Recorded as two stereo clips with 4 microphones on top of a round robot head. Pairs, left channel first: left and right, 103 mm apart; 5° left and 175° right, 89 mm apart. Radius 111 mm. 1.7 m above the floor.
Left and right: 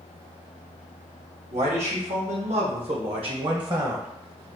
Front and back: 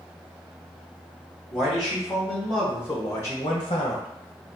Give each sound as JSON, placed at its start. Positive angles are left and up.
{"t": 1.5, "sound": "a man speaking", "azimuth_deg": -90, "distance_m": 1.7}